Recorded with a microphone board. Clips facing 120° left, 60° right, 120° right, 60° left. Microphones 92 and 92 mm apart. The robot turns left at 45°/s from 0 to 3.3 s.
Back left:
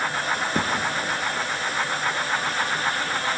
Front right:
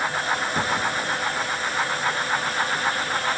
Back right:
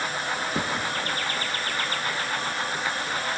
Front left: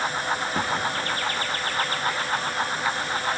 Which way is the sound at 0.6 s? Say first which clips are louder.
Even, front left 3 dB; 165° left.